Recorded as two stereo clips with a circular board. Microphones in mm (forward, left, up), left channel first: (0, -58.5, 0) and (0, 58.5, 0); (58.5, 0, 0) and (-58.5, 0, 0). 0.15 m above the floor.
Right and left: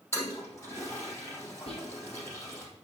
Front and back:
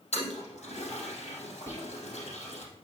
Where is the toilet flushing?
20° right, 3.5 m.